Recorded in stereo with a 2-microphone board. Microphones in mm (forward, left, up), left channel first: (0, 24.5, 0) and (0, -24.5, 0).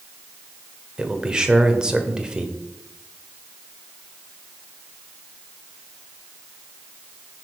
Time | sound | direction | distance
1.0 | a man speaking | 15° right (ahead or behind) | 1.2 m